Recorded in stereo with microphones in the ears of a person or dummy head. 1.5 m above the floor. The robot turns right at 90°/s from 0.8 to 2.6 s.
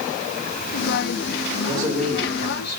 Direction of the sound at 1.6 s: 25° right (ahead or behind).